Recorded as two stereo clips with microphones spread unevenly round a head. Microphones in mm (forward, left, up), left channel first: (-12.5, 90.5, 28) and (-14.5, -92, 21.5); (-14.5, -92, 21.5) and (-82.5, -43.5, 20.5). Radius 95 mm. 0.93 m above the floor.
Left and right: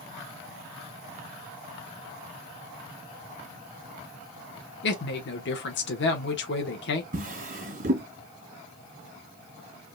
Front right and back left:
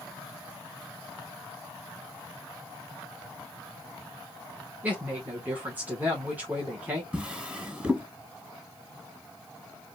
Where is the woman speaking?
65° left, 1.0 m.